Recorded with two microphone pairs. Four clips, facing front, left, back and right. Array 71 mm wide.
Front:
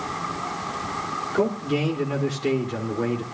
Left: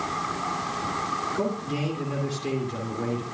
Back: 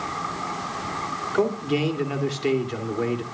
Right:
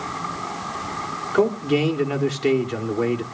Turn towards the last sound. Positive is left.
turn(degrees=-110)